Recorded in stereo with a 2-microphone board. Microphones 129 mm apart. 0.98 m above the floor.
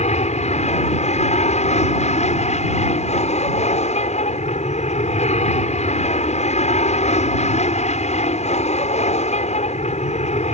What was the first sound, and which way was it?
An aircraft, 65° left (ahead or behind).